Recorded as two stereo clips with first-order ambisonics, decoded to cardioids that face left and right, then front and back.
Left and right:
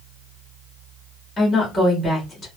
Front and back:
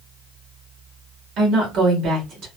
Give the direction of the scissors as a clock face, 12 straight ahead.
I don't hear scissors.